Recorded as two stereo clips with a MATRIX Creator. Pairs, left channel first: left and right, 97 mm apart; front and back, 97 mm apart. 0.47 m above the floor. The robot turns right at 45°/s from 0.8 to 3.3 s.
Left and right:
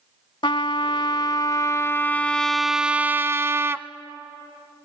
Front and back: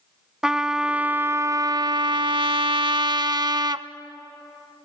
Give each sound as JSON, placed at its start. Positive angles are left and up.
{"t": 0.4, "sound": "a trumpet", "azimuth_deg": 100, "distance_m": 0.5}